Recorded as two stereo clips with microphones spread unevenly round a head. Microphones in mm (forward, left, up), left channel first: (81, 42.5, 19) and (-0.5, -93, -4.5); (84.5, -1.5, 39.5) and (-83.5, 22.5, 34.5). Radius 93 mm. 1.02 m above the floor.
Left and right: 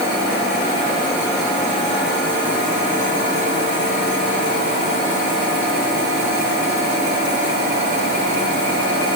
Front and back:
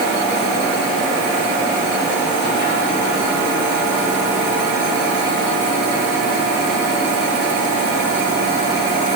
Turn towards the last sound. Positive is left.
No sound to turn to.